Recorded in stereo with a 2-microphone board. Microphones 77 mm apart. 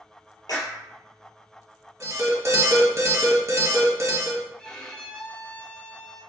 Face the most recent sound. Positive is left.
turn(degrees=10)  # may be behind; listen again after turning